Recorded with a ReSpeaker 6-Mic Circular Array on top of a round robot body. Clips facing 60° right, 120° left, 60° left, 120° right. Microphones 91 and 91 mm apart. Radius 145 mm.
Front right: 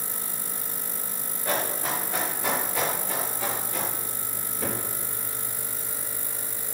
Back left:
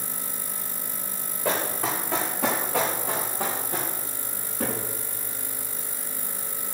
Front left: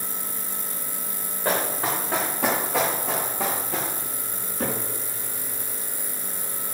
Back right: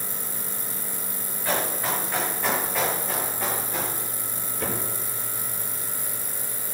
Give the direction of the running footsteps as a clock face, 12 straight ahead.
9 o'clock.